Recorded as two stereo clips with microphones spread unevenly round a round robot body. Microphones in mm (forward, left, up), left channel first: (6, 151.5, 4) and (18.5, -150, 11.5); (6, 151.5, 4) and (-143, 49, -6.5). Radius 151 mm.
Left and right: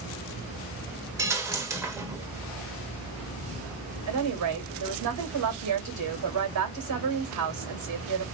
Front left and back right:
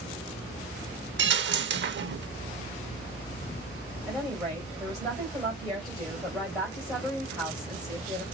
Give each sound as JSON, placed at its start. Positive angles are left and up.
{"t": 1.2, "sound": "a dropped coin", "azimuth_deg": -170, "distance_m": 0.7}
{"t": 4.1, "sound": "a woman speaking", "azimuth_deg": -55, "distance_m": 2.5}